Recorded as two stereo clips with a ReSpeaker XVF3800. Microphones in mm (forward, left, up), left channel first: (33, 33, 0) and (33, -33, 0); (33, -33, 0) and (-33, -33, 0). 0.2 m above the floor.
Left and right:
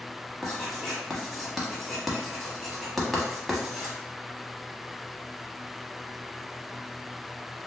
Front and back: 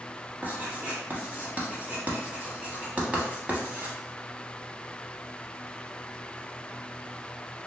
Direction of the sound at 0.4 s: 175° right.